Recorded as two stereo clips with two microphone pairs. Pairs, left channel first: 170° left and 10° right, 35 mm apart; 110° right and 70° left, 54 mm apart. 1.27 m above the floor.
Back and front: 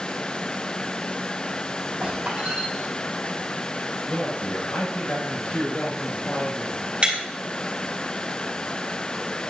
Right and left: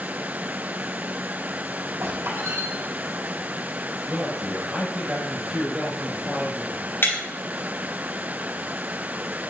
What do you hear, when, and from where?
2.0 s a squeak: 50° left, 4 m
4.0 s a man speaking: 145° left, 6 m
7.0 s breaking glass: 70° right, 5 m